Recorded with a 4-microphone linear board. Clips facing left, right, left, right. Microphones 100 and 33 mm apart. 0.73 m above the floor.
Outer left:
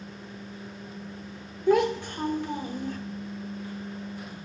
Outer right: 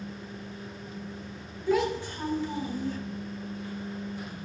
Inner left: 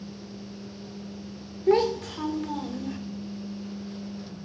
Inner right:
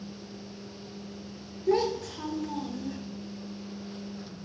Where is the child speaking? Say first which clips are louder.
Outer left 4 dB, inner left 4 dB; 60° left (ahead or behind), 0.9 m.